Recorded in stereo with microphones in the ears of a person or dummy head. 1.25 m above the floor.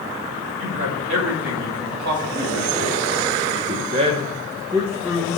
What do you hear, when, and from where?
0.6 s a man speaking: 80° right, 3 m; by 5.4 s 10° left (ahead or behind), 1.1 m